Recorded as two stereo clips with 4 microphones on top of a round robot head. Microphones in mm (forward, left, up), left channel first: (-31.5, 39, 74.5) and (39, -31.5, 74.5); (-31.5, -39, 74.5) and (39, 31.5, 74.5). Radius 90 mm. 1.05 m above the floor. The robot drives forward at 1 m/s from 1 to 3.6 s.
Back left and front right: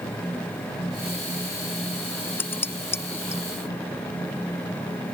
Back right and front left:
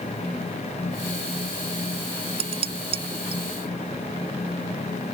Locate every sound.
2.4 s dishes clattering: 65° left; by 3.4 s 70° left